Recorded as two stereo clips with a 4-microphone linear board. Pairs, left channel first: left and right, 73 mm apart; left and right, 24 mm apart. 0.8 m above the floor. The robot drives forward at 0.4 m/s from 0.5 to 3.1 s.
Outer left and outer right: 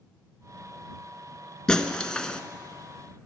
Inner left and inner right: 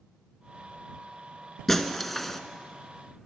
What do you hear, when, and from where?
1.7 s breaking glass: 10° left (ahead or behind), 0.8 m; by 2.4 s 15° left (ahead or behind), 0.7 m